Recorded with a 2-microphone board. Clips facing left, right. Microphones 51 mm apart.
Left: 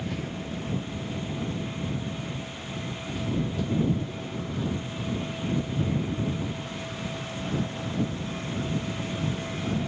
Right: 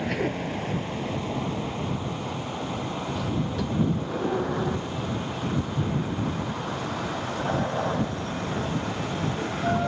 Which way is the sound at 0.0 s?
70° right (ahead or behind).